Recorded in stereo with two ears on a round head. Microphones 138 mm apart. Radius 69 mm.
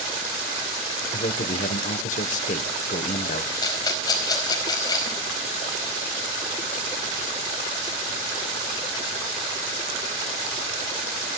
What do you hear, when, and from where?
1.1 s a man speaking: 50° left (ahead or behind), 1.1 m
3.6 s a rattle: 25° left (ahead or behind), 4.5 m